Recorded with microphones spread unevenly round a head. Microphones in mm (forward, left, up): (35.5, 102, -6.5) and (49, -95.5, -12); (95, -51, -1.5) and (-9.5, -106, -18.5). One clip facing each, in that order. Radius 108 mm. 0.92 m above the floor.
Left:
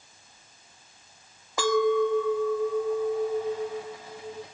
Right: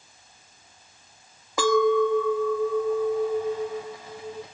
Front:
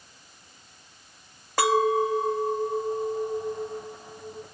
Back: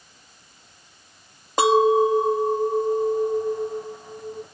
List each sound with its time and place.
1.6 s a clink: 80° right, 0.5 m